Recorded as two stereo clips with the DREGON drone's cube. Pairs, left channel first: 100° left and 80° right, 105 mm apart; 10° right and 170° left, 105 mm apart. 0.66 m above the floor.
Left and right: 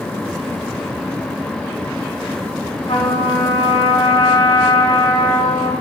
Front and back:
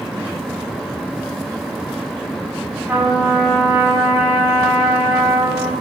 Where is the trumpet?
100° left, 5.5 m.